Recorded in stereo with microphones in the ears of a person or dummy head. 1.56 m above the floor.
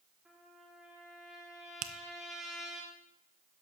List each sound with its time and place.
0.2 s a trumpet: 5° right (ahead or behind), 1.7 m
1.8 s a finger snap: 40° right (ahead or behind), 0.5 m